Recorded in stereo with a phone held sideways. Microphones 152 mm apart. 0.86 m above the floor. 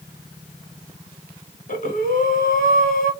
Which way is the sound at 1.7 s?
60° left (ahead or behind).